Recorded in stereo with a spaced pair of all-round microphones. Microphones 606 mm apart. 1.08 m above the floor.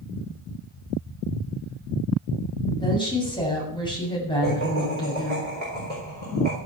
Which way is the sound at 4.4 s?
70° right (ahead or behind).